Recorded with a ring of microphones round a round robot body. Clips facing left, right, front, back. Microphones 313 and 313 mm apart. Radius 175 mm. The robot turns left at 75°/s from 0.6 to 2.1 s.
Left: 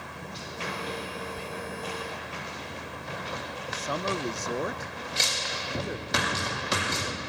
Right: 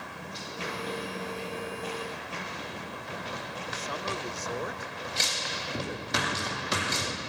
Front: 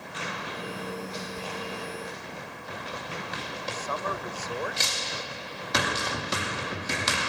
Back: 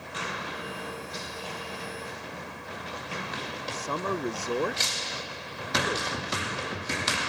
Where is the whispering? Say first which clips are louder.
Right 2 dB, front 3 dB; 65° left; by 1.5 s 55° left.